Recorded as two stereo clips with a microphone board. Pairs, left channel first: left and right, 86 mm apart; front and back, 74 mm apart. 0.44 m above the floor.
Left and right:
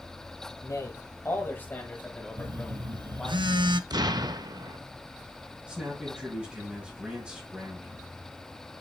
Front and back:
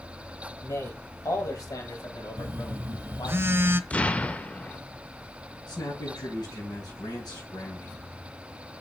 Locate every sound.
0.6 s a man speaking: 40° left, 2 m; by 3.4 s 5° left, 3 m
2.4 s a phone buzzing: 120° right, 0.5 m
3.9 s an explosion: 70° right, 0.6 m
5.7 s a man speaking: 15° right, 3.5 m